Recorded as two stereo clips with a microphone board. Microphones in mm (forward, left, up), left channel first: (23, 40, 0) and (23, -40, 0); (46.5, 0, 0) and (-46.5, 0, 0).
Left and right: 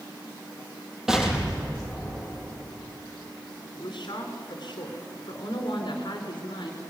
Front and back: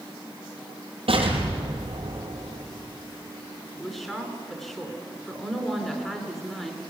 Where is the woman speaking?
85° left, 3.5 m.